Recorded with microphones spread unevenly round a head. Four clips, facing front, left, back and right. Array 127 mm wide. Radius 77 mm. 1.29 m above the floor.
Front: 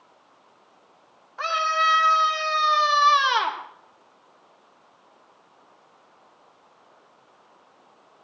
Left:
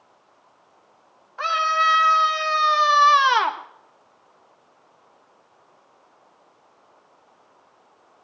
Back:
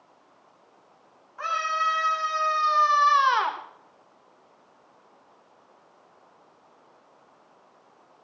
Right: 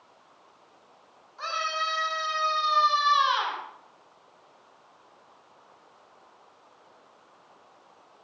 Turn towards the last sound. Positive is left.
turn(degrees=70)